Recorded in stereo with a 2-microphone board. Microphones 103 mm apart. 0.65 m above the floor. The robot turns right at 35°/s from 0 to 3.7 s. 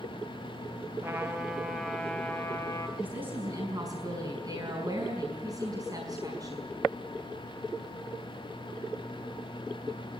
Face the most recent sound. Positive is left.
turn(degrees=-35)  # may be behind; listen again after turning